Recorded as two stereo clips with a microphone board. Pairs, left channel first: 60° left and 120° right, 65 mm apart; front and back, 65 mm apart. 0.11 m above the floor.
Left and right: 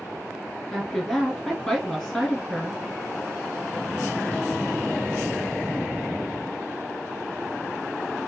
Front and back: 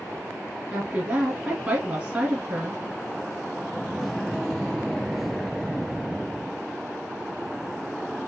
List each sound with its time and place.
0.7 s a woman speaking: 145° left, 1.5 m